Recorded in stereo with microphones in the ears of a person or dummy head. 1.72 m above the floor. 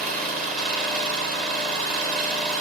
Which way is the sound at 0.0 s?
45° right (ahead or behind).